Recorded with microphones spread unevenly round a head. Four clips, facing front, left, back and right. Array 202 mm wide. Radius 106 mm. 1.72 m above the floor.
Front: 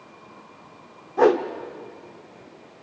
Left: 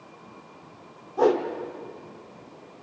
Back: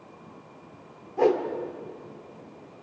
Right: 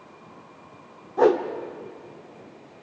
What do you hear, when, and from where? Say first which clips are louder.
1.2 s a whoosh: right 2 dB, front 4 dB; 45° right, 1.4 m